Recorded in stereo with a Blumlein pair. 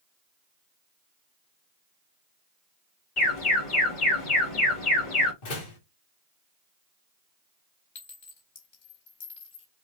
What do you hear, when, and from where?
3.2 s an alarm: 40° left, 2.0 m
5.4 s a door slam: 45° left, 1.6 m
8.0 s a clink: 50° left, 2.5 m